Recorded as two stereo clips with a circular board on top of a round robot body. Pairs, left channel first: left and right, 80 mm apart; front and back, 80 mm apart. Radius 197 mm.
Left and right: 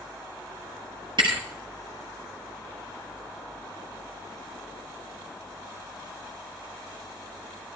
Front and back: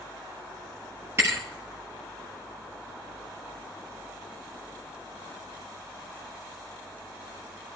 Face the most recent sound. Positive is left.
turn(degrees=-120)